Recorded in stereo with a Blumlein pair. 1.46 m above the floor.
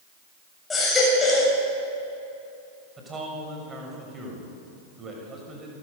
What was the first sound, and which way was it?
A baby crying, 15° left.